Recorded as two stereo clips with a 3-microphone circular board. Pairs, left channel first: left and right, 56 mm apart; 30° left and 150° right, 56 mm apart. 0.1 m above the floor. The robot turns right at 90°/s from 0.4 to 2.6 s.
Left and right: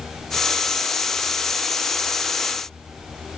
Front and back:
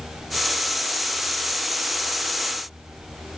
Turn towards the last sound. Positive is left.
No sound to turn to.